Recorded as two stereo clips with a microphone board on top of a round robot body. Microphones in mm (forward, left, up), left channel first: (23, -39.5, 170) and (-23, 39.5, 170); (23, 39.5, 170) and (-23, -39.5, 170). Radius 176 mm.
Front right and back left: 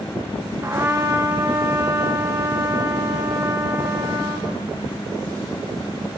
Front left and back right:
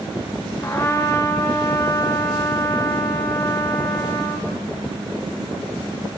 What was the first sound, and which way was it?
A trumpet, 90° left.